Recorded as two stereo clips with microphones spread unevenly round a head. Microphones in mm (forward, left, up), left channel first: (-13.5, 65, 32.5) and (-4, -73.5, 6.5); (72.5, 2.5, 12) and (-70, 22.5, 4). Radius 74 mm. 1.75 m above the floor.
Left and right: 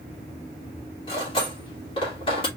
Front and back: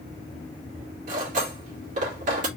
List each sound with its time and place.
1.1 s cutlery clinking: 140° left, 2.5 m